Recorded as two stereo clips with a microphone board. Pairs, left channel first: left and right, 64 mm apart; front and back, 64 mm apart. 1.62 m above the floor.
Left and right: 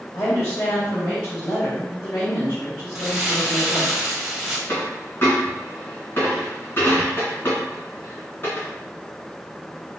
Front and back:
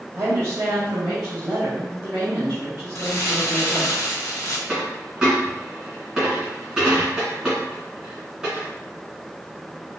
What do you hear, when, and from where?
0.1 s a woman speaking: 130° left, 1.4 m
3.0 s crumpling: 10° right, 0.9 m
4.7 s a dropped coin: 110° left, 1.9 m